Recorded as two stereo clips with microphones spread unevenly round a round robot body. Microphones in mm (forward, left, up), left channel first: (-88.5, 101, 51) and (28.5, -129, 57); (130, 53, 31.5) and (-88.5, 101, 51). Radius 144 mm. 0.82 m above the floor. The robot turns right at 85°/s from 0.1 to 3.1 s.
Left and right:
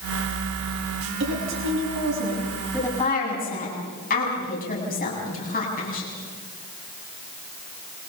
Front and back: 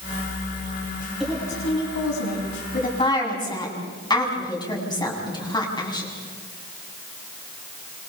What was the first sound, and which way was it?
A woman speaking, 105° right.